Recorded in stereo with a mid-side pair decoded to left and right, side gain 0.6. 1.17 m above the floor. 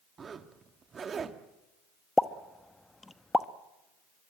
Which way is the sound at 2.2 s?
15° left.